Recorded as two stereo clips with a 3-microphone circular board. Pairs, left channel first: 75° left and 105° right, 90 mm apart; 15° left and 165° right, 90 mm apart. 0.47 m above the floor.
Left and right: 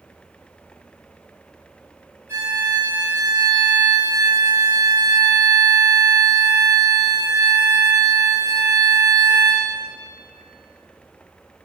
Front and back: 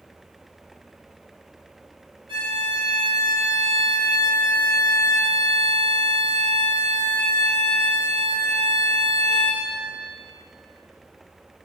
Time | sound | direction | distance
2.3 | a violin | 160° right | 3 m